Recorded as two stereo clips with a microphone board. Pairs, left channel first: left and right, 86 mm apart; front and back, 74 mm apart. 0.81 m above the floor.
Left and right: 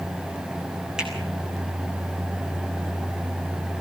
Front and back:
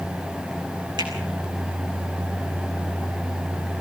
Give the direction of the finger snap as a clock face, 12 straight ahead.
6 o'clock.